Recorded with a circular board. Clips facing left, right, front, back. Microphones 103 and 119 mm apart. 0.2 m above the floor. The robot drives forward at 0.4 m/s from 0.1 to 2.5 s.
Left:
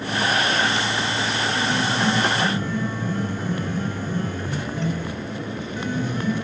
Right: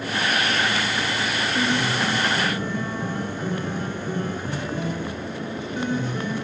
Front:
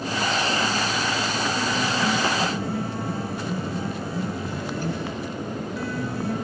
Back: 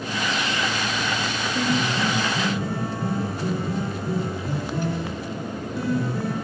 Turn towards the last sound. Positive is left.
turn(degrees=-160)